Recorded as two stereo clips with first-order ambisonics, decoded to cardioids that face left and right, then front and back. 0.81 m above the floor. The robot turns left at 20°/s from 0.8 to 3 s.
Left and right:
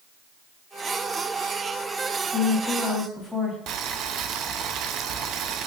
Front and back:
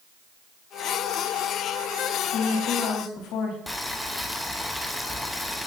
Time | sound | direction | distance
2.3 | a woman speaking | 10° left | 3 m
3.7 | boiling | 85° right | 0.6 m